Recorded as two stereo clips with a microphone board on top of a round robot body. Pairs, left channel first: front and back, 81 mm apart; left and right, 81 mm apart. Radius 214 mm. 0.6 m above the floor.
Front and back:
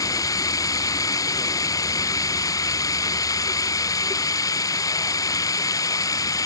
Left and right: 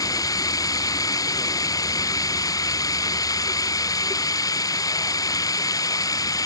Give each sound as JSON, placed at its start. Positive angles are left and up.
{"t": 0.0, "sound": "running water", "azimuth_deg": 45}